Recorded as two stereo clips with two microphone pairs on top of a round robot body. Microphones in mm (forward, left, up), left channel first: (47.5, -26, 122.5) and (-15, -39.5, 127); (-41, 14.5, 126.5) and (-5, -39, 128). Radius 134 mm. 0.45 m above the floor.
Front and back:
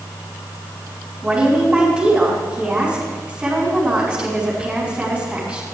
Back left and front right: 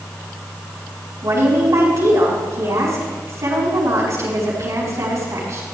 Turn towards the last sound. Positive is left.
turn(degrees=-90)